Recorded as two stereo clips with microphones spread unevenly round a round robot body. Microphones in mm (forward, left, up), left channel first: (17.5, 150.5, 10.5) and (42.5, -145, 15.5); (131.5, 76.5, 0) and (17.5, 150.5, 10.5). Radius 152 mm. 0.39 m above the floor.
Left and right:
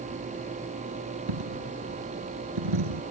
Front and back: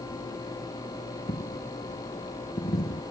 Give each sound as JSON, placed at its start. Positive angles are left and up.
{"t": 1.3, "sound": "a dropped coin", "azimuth_deg": -90}